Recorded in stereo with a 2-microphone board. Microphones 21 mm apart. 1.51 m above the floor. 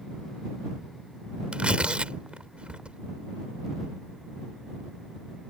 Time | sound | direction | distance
1.5 | tearing paper | 50° right (ahead or behind) | ?